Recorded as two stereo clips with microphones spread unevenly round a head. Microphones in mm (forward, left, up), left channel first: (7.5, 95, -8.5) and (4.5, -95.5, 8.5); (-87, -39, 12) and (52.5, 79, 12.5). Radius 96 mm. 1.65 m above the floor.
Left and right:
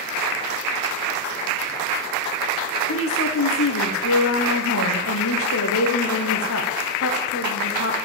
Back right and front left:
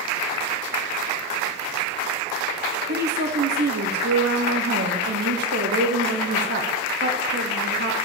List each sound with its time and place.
2.9 s a woman speaking: 75° left, 1.2 m